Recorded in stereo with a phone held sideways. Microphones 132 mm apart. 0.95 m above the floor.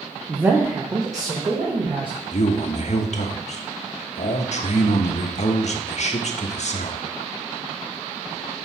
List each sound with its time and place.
0.3 s a man speaking: 10° right (ahead or behind), 0.7 m; by 2.2 s 35° right (ahead or behind), 1.5 m
2.3 s a man speaking: 60° left (ahead or behind), 0.9 m